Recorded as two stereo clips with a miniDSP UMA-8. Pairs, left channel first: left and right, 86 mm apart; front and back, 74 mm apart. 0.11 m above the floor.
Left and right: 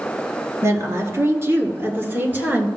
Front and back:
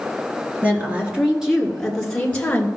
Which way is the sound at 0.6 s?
125° right.